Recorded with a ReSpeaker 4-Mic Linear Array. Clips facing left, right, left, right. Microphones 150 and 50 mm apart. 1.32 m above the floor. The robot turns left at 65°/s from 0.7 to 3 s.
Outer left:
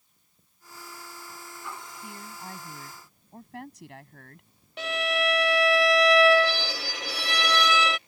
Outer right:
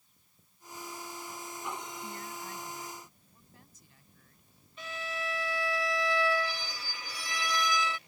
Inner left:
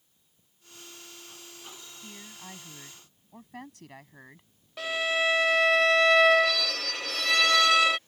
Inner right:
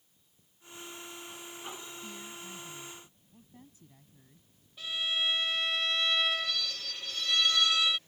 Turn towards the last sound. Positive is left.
turn(degrees=75)  # may be behind; listen again after turning